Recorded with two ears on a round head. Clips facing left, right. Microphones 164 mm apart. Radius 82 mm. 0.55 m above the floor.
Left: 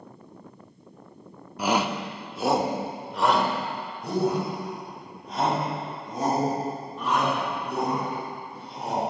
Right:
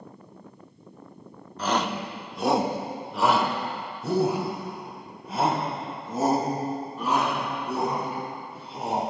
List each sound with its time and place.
1.6 s a shout: 10° left (ahead or behind), 0.6 m; by 9.1 s 5° right (ahead or behind), 5 m